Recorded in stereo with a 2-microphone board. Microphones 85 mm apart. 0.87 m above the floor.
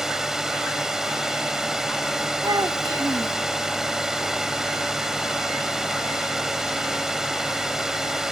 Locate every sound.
0.0 s a drone: 5° right (ahead or behind)
2.4 s a child speaking: 50° right (ahead or behind)